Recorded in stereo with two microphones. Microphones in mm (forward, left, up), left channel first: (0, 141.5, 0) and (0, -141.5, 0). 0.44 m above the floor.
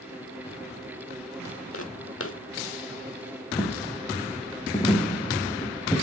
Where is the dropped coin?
15° left (ahead or behind), 3 m.